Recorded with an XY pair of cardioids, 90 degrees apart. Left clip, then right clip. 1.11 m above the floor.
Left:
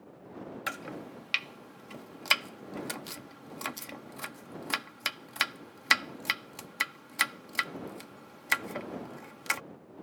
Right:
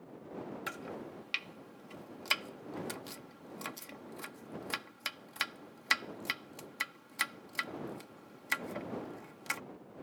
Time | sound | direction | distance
0.7 | chopping | 45° left | ?